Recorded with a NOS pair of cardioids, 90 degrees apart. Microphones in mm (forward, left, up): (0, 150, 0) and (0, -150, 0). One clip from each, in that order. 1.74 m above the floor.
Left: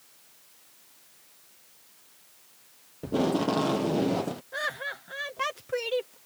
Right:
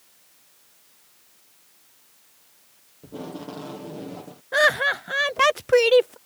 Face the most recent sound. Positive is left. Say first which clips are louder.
# right 15 dB
turn(degrees=-65)